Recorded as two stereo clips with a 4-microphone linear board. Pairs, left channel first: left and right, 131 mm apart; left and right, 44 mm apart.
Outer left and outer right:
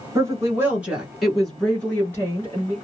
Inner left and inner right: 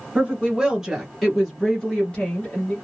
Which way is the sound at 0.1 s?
25° right (ahead or behind).